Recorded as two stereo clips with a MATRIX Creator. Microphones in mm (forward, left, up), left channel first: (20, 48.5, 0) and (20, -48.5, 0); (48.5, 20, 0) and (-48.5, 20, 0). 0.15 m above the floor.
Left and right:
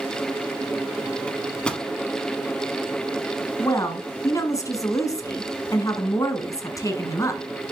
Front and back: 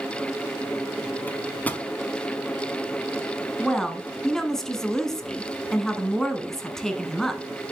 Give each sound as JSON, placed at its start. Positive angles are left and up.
{"t": 1.3, "sound": "a microwave", "azimuth_deg": 35, "distance_m": 0.9}
{"t": 3.6, "sound": "a woman speaking", "azimuth_deg": 80, "distance_m": 1.2}